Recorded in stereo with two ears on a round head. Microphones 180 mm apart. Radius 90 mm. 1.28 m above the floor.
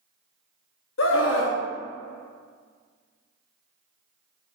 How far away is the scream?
About 0.9 m.